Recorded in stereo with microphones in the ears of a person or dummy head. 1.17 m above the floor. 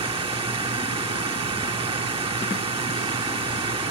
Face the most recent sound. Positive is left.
turn(degrees=-20)  # may be behind; listen again after turning